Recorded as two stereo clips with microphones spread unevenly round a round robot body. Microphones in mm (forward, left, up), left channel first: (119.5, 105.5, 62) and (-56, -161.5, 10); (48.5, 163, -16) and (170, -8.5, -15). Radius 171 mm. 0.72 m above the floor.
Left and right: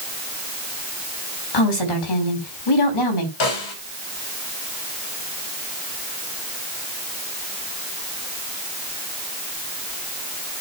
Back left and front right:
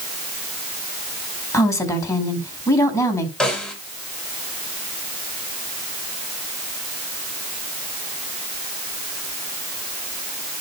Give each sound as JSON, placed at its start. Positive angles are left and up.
{"t": 1.5, "sound": "a woman speaking", "azimuth_deg": 50, "distance_m": 5.0}
{"t": 3.4, "sound": "a snare drum", "azimuth_deg": 40, "distance_m": 4.0}